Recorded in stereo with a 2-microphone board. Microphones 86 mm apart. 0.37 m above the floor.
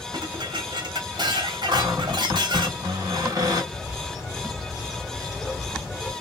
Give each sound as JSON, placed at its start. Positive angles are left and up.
{"t": 0.1, "sound": "dishes clattering", "side_deg": -60, "distance_m": 1.3}
{"t": 1.7, "sound": "a cupboard door", "side_deg": -40, "distance_m": 1.8}
{"t": 3.7, "sound": "a bird", "side_deg": 0, "distance_m": 1.0}